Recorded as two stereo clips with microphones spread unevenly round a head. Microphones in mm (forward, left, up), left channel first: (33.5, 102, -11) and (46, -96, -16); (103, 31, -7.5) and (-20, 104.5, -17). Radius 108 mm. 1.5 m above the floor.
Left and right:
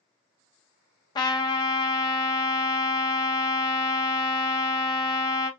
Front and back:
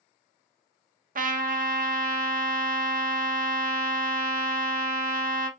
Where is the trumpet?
160° left, 0.6 m.